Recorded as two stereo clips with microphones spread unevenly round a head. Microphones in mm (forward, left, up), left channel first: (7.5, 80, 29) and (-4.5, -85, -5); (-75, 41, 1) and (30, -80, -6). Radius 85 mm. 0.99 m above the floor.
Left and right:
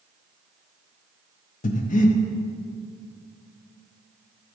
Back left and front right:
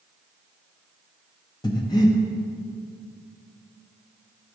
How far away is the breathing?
About 0.6 m.